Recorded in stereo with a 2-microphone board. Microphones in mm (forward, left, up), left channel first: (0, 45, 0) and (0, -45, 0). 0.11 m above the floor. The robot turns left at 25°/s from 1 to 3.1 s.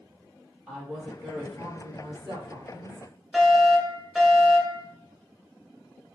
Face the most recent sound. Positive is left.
turn(degrees=0)  # may be behind; listen again after turning